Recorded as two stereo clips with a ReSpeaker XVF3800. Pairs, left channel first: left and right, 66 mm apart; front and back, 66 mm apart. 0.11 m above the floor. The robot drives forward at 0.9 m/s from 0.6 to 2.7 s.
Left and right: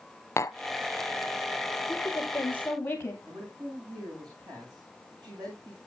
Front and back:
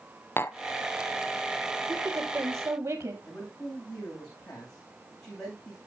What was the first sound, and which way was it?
Tapping, 50° left.